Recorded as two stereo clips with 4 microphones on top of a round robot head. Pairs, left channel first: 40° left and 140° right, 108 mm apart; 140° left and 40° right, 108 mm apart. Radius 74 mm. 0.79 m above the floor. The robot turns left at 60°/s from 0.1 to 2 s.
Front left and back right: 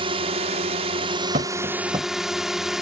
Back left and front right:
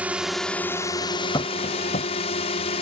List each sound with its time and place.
0.0 s a drone: 115° right; by 2.8 s 130° left
1.3 s tapping: 160° right; by 2.1 s 160° left